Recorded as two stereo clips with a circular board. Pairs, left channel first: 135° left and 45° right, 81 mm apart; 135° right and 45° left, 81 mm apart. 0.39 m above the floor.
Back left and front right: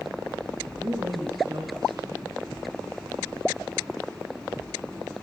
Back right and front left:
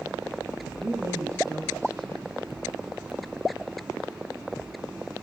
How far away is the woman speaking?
About 4.5 m.